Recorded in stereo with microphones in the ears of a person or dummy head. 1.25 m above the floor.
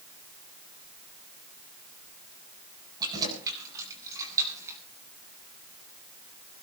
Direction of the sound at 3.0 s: 20° right (ahead or behind).